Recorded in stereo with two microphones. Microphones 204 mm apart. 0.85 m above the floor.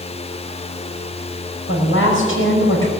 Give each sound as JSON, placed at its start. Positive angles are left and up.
{"t": 1.7, "sound": "a woman speaking", "side_deg": 80, "distance_m": 5.0}